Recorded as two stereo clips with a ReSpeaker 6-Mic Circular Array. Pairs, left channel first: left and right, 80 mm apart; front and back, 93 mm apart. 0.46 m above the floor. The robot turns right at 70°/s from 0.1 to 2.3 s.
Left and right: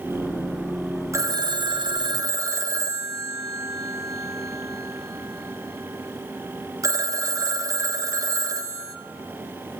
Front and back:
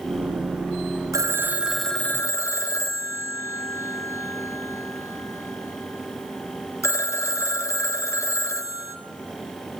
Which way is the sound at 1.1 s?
135° right.